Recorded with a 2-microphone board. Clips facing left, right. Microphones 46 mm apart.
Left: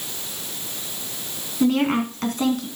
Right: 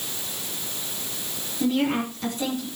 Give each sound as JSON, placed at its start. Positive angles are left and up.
{"t": 1.6, "sound": "a woman speaking", "side_deg": 60, "distance_m": 3.0}